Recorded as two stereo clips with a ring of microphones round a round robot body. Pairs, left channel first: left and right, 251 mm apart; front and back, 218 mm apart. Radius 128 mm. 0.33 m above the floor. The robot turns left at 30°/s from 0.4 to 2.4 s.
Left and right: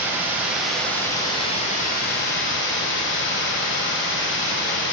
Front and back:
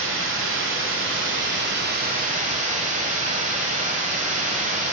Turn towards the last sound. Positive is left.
turn(degrees=130)